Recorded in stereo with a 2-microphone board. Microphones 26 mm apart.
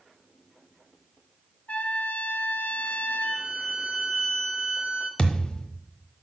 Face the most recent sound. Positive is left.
turn(degrees=35)  # may be behind; listen again after turning